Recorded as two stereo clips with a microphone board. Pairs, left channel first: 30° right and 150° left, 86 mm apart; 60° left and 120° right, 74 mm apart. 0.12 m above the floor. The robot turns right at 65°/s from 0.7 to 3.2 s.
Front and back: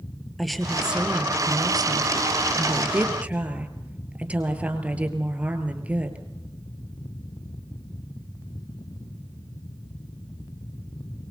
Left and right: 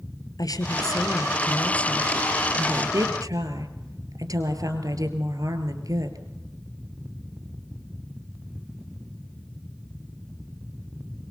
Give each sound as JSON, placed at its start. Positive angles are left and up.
{"t": 0.4, "sound": "a woman speaking", "azimuth_deg": 60, "distance_m": 2.5}